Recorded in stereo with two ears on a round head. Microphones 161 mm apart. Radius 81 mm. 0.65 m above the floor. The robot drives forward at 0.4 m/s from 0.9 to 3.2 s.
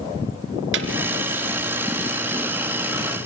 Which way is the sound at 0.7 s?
75° right (ahead or behind).